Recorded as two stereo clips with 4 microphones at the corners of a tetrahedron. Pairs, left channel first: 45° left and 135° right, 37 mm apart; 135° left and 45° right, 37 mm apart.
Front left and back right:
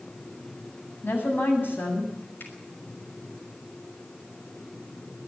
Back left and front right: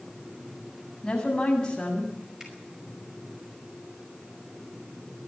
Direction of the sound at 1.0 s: 65° left.